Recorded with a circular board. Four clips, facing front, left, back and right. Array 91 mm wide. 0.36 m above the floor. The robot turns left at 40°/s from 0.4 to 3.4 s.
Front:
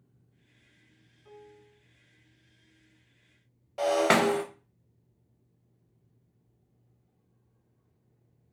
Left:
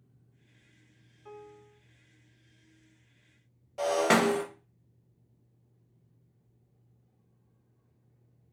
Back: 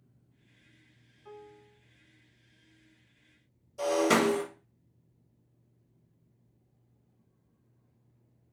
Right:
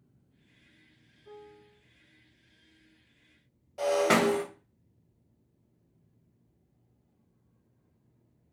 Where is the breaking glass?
10° left, 1.2 m.